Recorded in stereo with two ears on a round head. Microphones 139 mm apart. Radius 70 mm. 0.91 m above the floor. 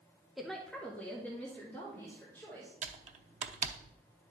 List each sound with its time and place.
0.4 s a woman speaking: centre (ahead or behind), 0.7 m; by 2.7 s 15° left (ahead or behind), 3.5 m
2.8 s typing on a keyboard: 45° right (ahead or behind), 0.7 m